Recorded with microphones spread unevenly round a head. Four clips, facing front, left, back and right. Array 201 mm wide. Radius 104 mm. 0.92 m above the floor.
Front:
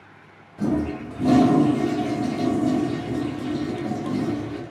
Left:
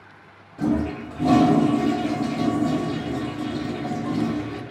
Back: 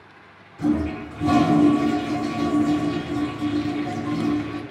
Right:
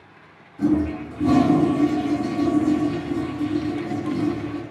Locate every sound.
0.6 s a toilet flushing: 50° left, 1.3 m